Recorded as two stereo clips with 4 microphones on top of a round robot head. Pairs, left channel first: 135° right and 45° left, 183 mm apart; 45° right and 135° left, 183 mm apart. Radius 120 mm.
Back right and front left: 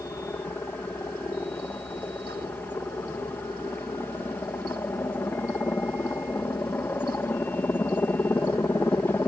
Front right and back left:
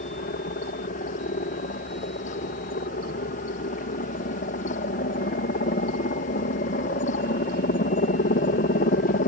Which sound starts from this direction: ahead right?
A helicopter, at 0.0 s.